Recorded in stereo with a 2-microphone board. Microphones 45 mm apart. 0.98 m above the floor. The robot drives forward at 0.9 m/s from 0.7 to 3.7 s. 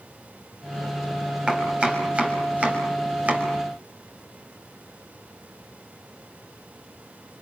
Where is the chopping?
25° right (ahead or behind), 5.5 m; by 3.5 s 35° right (ahead or behind), 4 m.